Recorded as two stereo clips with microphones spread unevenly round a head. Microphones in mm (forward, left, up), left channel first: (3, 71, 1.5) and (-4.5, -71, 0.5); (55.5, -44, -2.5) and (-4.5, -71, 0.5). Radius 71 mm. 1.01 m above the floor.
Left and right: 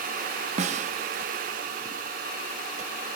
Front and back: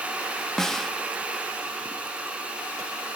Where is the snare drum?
60° right, 1.2 m.